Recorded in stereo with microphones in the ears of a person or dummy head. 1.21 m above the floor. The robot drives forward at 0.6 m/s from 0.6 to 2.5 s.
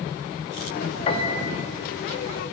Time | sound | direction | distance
1.1 | a piano | 35° left (ahead or behind) | 1.0 m